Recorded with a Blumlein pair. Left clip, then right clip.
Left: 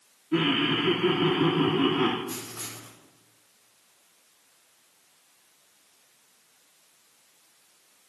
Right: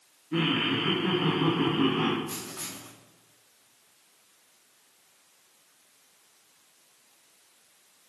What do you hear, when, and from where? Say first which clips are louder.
0.3 s laughter: left 2 dB; 10° left, 1.4 m
2.3 s writing: left 1 dB; 5° right, 2.5 m